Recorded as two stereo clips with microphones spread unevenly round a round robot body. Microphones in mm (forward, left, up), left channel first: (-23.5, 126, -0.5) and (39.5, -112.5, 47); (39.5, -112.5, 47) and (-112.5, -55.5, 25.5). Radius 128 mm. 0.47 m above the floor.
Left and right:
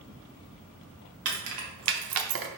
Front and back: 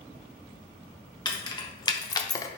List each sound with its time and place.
1.2 s keys jangling: 85° right, 1.3 m; by 2.5 s 95° right, 0.5 m